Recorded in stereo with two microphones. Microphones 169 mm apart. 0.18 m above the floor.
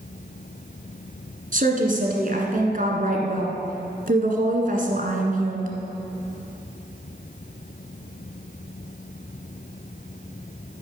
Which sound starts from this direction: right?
A woman speaking, at 1.5 s.